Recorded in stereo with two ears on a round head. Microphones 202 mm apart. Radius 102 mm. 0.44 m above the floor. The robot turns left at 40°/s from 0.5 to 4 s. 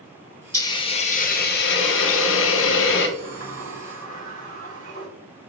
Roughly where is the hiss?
Behind.